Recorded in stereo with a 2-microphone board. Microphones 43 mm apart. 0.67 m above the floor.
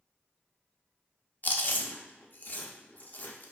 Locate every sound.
1.4 s chewing: 45° left (ahead or behind), 0.5 m